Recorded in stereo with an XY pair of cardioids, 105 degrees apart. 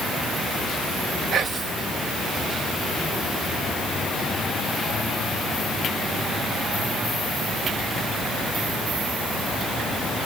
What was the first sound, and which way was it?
Whispering, 55° right.